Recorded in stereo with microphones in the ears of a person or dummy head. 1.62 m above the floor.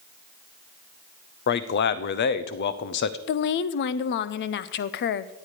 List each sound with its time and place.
1.5 s a man speaking: 45° left (ahead or behind), 0.7 m
3.3 s a woman speaking: 60° left (ahead or behind), 0.6 m